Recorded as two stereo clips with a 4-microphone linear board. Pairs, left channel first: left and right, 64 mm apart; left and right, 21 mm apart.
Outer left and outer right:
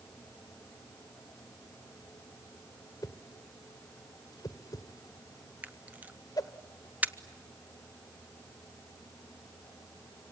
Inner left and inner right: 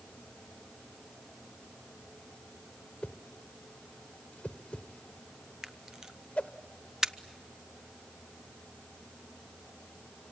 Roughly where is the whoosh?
Left.